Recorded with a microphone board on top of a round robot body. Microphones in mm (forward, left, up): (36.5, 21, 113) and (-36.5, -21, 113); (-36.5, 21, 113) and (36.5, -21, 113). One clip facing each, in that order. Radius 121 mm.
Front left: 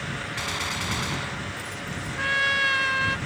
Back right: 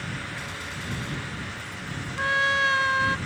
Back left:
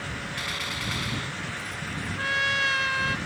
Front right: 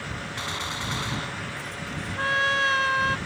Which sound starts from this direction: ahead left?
A gunshot, at 0.4 s.